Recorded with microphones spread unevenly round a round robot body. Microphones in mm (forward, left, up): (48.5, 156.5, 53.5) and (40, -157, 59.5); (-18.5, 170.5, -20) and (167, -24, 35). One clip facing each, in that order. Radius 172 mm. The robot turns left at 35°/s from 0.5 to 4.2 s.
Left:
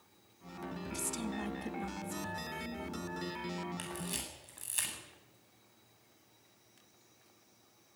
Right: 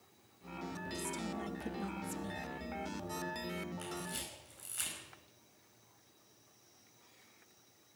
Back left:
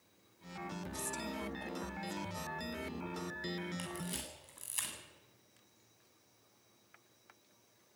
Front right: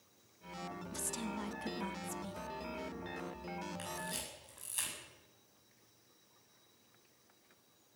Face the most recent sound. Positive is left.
turn(degrees=85)